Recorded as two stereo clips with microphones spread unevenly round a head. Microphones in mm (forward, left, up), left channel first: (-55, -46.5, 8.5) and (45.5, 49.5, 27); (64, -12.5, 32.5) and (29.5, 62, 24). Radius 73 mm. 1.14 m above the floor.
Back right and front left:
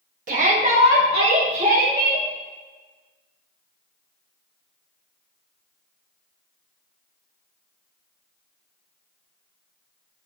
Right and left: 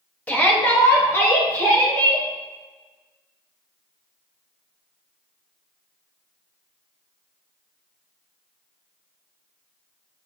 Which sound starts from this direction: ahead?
A shout, at 0.3 s.